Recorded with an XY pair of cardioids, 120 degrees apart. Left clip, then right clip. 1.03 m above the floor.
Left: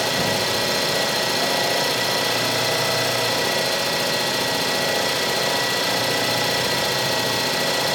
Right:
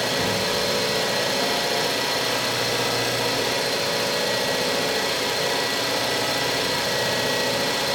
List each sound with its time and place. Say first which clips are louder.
0.0 s an engine running: left 2 dB; 35° left, 5.5 m